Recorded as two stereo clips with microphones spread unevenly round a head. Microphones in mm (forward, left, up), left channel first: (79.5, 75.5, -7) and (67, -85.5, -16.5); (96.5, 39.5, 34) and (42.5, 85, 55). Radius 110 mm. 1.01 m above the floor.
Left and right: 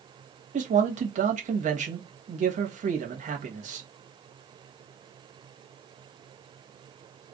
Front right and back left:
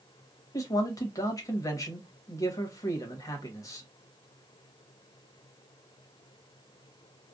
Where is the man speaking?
60° right, 1.1 m.